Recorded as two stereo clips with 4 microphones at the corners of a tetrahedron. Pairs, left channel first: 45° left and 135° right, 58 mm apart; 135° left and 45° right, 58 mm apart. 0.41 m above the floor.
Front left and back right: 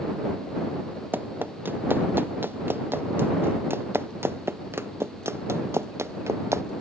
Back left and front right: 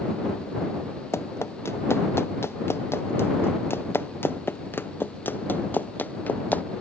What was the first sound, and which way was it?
Running footsteps, 175° left.